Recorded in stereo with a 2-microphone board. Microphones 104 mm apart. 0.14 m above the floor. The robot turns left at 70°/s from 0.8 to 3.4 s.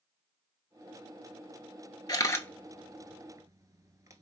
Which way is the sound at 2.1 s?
45° left (ahead or behind).